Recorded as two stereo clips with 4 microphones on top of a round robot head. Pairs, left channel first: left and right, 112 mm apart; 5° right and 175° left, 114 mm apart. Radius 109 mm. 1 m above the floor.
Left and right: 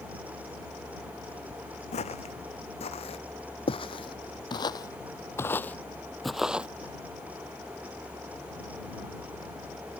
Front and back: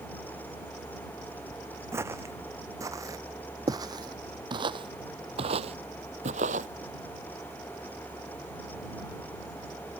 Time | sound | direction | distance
1.9 | footsteps | 110° left | ?